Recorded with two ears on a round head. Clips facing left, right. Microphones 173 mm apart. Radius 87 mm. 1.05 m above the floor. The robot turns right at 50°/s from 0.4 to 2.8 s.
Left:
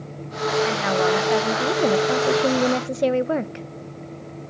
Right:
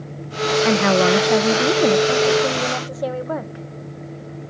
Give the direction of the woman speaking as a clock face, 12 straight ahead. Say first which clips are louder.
Right 5 dB; 2 o'clock.